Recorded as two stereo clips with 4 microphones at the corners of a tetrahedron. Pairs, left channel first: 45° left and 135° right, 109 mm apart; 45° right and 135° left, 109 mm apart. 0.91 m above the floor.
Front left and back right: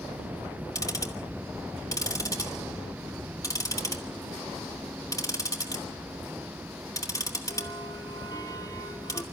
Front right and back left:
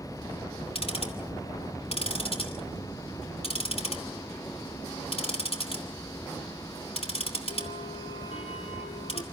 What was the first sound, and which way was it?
Ticking, 15° right.